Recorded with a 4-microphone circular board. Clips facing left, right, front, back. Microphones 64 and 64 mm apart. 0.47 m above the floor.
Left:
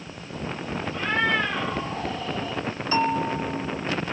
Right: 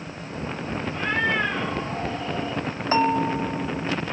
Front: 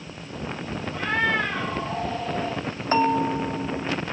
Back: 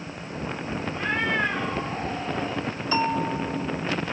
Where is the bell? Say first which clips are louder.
Right 3 dB, front 4 dB; 45° right, 1.5 m.